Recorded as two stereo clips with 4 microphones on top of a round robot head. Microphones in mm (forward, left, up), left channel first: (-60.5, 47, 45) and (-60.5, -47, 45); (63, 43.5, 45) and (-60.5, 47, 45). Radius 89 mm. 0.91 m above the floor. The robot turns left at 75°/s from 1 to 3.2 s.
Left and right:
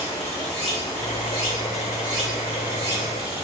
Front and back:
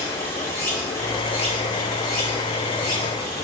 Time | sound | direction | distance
0.0 | running water | 65° left | 1.3 m